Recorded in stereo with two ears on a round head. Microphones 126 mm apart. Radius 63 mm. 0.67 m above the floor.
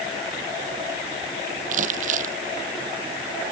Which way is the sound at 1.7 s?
60° right (ahead or behind).